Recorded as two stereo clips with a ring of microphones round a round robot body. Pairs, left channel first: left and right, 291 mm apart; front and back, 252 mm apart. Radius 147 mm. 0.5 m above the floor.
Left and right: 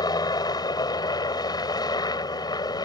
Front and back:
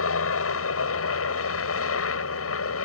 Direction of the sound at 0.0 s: 15° left.